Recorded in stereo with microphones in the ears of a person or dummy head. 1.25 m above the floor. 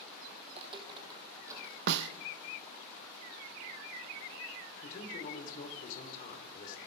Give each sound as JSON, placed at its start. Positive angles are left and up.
{"t": 0.5, "sound": "footsteps", "side_deg": -35, "distance_m": 1.9}
{"t": 1.9, "sound": "a snare drum", "side_deg": -70, "distance_m": 0.7}
{"t": 4.8, "sound": "a man speaking", "side_deg": 45, "distance_m": 3.5}